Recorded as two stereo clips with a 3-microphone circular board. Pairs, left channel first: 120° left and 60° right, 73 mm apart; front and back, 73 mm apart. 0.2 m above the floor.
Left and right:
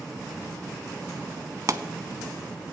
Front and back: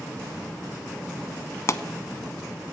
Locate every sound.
1.7 s a pop: 35° right, 0.7 m